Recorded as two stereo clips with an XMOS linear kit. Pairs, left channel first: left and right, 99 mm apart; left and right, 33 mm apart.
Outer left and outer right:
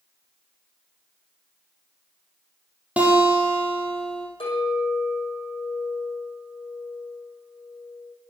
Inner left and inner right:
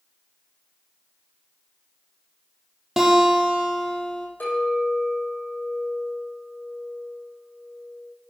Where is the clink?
60° left (ahead or behind), 6.5 m.